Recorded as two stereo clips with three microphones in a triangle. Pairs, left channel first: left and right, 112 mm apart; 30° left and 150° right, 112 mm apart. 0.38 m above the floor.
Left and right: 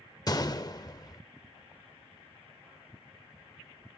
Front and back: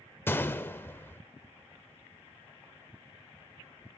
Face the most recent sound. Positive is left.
turn(degrees=85)